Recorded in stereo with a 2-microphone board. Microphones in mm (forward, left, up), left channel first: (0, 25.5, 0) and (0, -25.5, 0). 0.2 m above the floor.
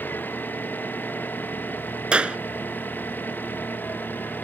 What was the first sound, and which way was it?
An engine running, 35° left (ahead or behind).